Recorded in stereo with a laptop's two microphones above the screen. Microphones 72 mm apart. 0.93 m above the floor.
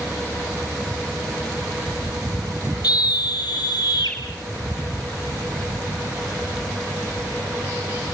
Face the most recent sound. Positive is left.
turn(degrees=65)  # may be behind; listen again after turning